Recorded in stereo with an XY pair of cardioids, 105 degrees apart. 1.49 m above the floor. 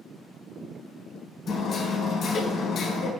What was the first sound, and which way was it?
Hammering, 65° left.